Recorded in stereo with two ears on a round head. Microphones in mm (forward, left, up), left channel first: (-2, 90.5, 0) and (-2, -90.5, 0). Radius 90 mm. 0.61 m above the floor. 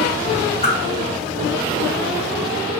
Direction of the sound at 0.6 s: 30° left (ahead or behind).